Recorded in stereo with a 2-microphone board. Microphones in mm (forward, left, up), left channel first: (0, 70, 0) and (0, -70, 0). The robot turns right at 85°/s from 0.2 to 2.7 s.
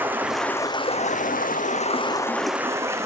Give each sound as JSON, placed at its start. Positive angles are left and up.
{"t": 0.0, "sound": "running water", "azimuth_deg": -15, "distance_m": 0.8}